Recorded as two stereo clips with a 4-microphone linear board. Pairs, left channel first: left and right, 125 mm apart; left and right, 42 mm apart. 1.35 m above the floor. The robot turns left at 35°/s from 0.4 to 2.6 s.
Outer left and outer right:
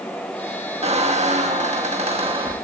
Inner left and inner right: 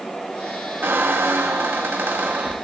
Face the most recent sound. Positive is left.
turn(degrees=-130)